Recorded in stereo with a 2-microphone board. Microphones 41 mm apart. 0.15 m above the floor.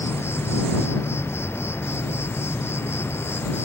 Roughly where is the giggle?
No giggle in this recording.